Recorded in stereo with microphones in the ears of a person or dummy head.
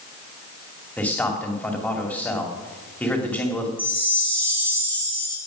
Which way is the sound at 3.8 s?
5° left (ahead or behind).